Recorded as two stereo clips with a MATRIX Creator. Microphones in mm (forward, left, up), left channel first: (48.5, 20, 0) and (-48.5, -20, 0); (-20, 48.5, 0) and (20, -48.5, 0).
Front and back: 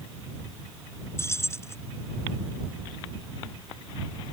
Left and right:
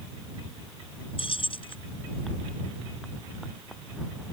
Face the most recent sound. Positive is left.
turn(degrees=85)